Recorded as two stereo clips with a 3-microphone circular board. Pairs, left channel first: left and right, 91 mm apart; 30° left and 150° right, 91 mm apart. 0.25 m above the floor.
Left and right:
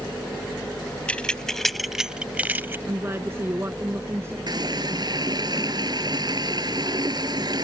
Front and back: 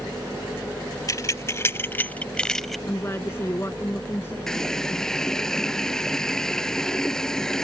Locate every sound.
1.1 s keys jangling: 25° left; by 2.8 s 55° right
2.9 s a woman speaking: 30° right
4.5 s a running tap: 55° right